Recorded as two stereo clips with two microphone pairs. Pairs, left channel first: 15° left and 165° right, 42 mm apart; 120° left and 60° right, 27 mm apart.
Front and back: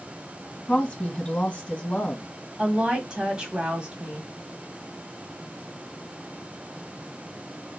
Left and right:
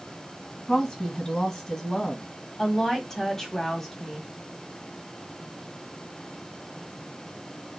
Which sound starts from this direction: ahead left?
A woman speaking, at 0.7 s.